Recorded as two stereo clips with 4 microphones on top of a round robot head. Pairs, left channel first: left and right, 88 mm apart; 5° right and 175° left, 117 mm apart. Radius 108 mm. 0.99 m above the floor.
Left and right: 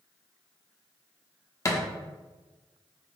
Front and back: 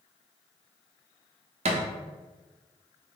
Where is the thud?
145° left, 0.8 m.